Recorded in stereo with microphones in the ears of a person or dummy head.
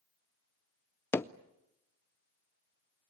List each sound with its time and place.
1.1 s hammering: 15° left (ahead or behind), 0.5 m